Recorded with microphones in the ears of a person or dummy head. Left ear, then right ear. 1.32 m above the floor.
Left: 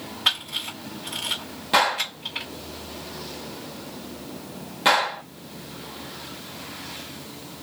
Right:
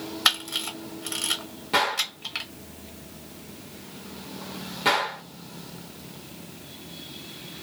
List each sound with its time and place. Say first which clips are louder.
0.2 s a camera shutter: even; 60° right (ahead or behind), 0.9 m
1.7 s a gunshot: left 3 dB; 10° left (ahead or behind), 1.2 m